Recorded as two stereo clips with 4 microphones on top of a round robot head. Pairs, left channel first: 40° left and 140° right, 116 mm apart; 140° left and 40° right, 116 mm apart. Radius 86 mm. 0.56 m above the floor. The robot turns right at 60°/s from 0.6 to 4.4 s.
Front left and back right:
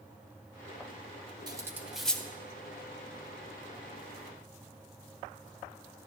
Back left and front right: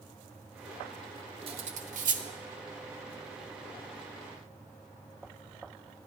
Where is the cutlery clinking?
80° right, 1.1 m; by 2.2 s 35° right, 1.1 m.